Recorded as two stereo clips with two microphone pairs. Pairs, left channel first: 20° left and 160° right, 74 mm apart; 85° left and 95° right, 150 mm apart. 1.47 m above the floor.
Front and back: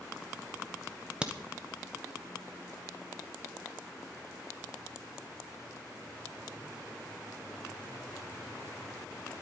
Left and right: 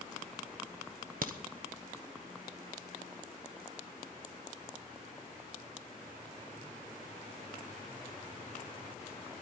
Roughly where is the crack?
Right.